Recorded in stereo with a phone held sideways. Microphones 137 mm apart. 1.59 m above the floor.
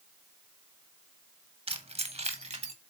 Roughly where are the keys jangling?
Right.